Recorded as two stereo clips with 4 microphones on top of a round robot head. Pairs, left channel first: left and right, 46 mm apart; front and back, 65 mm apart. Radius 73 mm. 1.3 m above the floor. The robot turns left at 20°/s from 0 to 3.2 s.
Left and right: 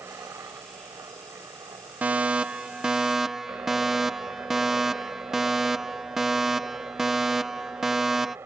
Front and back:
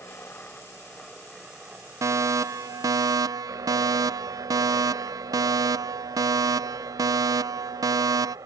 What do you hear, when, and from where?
0.0 s a helicopter: 65° right; by 8.5 s 135° right
2.0 s a fire alarm: 145° right; by 8.4 s 170° right